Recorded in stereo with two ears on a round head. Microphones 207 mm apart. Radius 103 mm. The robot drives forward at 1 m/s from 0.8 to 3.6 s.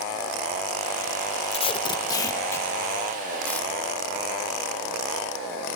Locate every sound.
1.5 s tape being pulled: 25° left (ahead or behind), 0.7 m; by 3.7 s 5° left (ahead or behind), 2.5 m